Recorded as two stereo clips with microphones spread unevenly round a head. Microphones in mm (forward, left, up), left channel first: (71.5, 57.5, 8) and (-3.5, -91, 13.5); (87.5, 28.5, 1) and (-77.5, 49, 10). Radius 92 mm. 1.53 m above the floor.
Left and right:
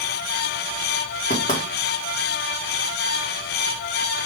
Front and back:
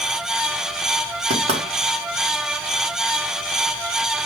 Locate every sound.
1.3 s knocking: 120° left, 1.9 m